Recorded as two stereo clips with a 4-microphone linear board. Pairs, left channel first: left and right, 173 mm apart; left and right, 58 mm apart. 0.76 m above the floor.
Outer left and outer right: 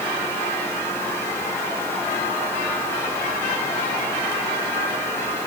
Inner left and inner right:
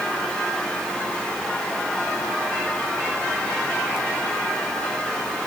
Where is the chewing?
No chewing in this recording.